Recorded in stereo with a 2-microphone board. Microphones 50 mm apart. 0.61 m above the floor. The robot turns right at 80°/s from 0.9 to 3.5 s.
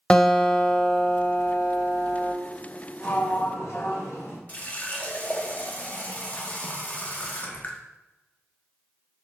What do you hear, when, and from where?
0.1 s a guitar: 20° left, 0.6 m; by 2.3 s 135° left, 0.6 m
3.0 s a sliding door: 50° left, 1.0 m; by 4.4 s 90° left, 1.0 m
4.5 s a running tap: 30° left (ahead or behind), 0.5 m